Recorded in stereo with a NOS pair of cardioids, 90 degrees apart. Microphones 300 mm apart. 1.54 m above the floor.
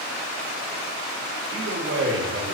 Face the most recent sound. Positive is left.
turn(degrees=-40)